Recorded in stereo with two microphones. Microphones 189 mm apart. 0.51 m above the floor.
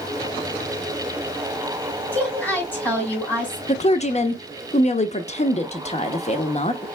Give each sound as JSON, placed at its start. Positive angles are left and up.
{"t": 2.1, "sound": "a woman speaking", "side_deg": 10, "distance_m": 3.5}
{"t": 3.7, "sound": "a woman speaking", "side_deg": 35, "distance_m": 0.8}